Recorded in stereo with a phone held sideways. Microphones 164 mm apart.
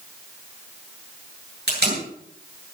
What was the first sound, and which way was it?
Tape being pulled, 80° right.